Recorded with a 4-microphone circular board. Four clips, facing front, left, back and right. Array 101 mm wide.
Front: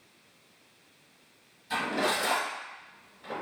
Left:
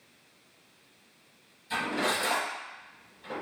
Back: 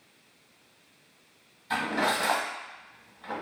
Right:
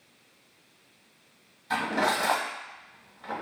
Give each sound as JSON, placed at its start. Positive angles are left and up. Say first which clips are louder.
{"t": 1.7, "sound": "cutlery clinking", "louder": "right 4 dB, back 1 dB", "azimuth_deg": -115, "distance_m": 0.9}